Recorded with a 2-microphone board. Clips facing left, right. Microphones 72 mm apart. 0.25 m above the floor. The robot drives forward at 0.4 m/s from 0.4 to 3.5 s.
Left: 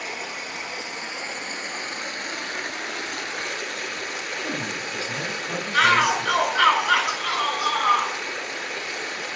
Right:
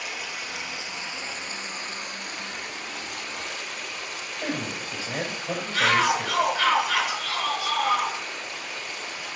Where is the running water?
40° left (ahead or behind), 1.5 m; by 9.4 s 80° left, 1.0 m.